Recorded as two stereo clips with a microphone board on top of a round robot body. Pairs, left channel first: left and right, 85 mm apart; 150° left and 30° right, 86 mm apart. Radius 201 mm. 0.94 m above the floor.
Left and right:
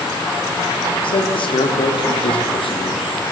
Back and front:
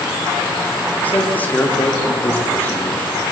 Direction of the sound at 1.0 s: 80° left.